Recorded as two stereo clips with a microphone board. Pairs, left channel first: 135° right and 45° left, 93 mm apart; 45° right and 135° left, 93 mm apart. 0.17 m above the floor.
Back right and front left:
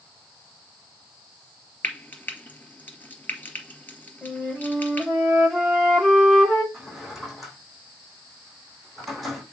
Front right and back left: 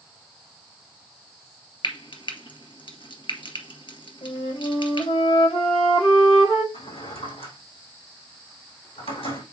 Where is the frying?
65° right, 1.9 m.